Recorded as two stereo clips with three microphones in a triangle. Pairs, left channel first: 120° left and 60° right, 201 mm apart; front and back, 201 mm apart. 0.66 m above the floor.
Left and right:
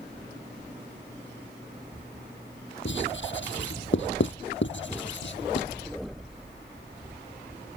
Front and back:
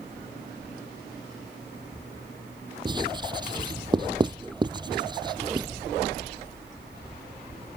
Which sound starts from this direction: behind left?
Writing, at 2.9 s.